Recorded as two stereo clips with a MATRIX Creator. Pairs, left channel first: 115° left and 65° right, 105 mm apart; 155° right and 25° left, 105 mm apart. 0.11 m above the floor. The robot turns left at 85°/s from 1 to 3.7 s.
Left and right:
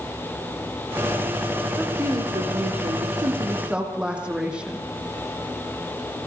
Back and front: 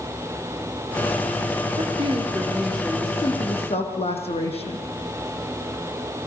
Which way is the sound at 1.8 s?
15° left.